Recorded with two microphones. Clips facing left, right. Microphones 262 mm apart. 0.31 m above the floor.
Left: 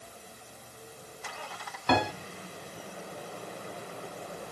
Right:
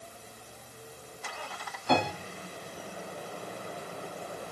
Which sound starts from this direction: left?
A piano, at 1.9 s.